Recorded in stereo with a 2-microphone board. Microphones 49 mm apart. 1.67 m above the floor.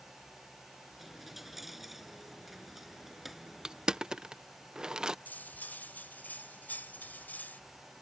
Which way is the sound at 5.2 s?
40° left (ahead or behind).